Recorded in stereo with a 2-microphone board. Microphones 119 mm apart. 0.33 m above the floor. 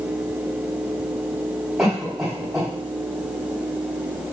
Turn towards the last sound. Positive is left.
turn(degrees=0)  # may be behind; listen again after turning